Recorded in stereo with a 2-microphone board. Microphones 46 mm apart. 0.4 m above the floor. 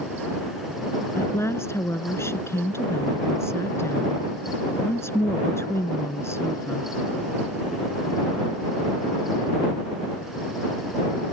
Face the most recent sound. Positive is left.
turn(degrees=75)  # may be behind; listen again after turning